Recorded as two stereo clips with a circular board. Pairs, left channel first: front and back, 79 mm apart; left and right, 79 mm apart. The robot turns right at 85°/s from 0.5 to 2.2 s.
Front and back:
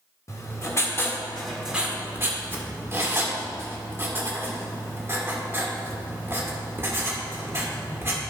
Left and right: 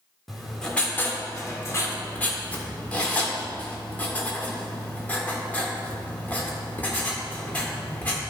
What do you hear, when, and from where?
0.3 s writing: straight ahead, 1.5 m; by 8.2 s 145° left, 1.5 m